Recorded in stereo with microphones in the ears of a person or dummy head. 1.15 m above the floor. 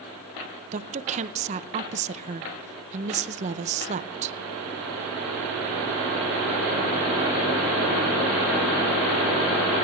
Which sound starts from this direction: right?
A woman speaking, at 0.7 s.